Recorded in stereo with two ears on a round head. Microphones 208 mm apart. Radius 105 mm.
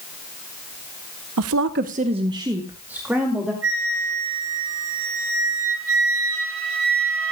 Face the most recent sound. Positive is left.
turn(degrees=-55)  # may be behind; listen again after turning